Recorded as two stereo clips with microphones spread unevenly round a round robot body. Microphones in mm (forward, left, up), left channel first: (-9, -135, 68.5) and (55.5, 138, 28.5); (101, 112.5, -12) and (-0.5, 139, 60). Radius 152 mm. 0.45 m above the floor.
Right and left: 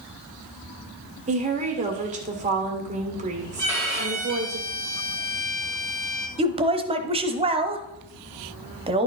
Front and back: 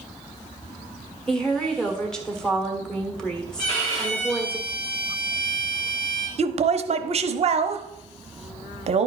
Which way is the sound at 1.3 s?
30° left.